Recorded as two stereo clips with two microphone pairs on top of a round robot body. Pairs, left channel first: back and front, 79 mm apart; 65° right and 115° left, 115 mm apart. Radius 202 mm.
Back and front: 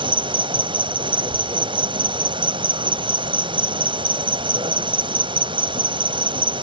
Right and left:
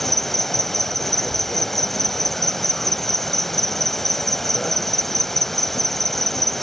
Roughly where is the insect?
Ahead.